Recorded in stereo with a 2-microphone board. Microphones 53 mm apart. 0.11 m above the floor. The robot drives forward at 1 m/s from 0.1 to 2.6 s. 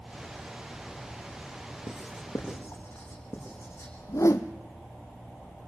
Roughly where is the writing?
Left.